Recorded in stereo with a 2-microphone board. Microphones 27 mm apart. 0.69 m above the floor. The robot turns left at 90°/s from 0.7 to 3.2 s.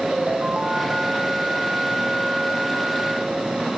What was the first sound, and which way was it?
A ringtone, 55° right.